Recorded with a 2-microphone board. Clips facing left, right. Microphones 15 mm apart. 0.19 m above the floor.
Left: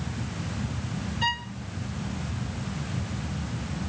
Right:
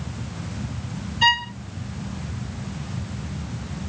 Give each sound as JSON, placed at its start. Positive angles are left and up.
{"t": 1.2, "sound": "a violin", "side_deg": -30}